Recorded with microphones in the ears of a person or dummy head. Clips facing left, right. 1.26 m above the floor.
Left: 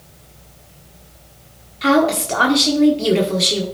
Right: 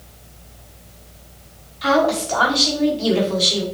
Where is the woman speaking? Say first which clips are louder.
Left 2 dB; 30° left (ahead or behind), 1.1 m.